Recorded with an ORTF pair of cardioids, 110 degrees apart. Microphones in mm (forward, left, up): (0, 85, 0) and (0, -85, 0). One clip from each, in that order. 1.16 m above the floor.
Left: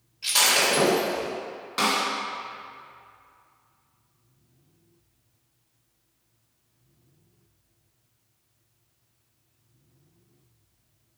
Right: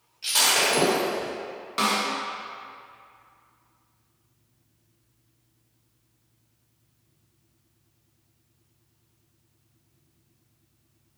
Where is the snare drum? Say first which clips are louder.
Even; straight ahead, 1.2 m.